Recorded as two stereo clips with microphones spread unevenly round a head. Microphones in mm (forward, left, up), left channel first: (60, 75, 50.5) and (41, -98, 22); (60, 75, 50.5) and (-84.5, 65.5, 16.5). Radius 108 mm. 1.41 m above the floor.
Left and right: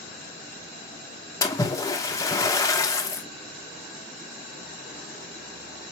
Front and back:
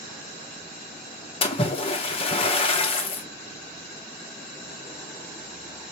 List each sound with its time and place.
1.4 s a splash: 25° left, 0.8 m